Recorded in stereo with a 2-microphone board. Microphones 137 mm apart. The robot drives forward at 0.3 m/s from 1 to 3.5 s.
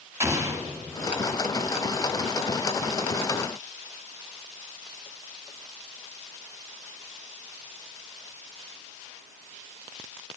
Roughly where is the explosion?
Right.